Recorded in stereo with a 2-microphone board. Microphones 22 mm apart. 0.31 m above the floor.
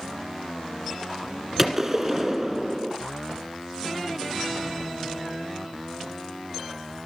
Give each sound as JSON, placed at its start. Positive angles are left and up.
{"t": 1.6, "sound": "a gunshot", "side_deg": -10, "distance_m": 1.5}